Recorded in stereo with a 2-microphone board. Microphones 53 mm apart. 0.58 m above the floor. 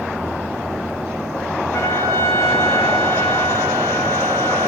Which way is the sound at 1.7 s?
60° left (ahead or behind).